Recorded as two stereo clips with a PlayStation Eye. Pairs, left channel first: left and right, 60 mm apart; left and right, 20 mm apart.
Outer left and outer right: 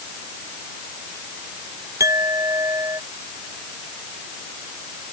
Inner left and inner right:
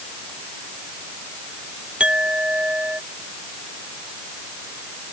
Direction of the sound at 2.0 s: 65° right (ahead or behind).